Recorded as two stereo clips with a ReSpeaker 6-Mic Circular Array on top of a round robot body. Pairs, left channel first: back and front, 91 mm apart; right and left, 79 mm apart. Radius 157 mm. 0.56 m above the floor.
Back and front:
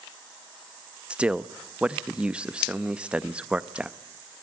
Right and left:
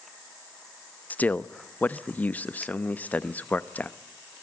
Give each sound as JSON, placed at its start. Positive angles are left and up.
{"t": 1.1, "sound": "a man speaking", "azimuth_deg": -60, "distance_m": 1.1}